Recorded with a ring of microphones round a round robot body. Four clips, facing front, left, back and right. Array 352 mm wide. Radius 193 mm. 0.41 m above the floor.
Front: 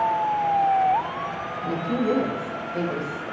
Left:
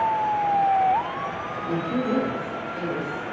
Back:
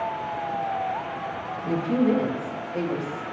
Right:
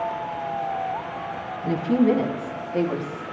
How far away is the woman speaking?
About 3.5 m.